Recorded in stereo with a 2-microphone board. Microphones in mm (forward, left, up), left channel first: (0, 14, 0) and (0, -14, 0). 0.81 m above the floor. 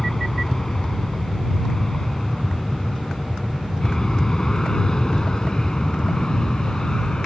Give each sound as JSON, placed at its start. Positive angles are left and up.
{"t": 0.0, "sound": "an aircraft", "side_deg": 20}